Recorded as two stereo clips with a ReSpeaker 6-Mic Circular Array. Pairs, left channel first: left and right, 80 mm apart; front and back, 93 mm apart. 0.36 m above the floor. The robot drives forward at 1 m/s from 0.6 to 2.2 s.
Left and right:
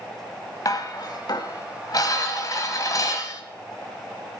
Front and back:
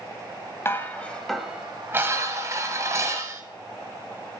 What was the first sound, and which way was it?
Dishes clattering, 55° left.